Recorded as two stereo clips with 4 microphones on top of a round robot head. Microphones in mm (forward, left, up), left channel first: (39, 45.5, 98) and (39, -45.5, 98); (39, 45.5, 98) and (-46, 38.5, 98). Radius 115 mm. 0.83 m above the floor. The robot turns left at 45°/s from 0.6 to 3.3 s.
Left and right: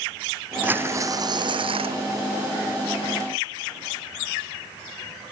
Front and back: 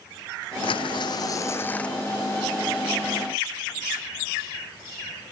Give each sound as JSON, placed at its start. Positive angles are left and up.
{"t": 0.6, "sound": "tearing paper", "azimuth_deg": -20}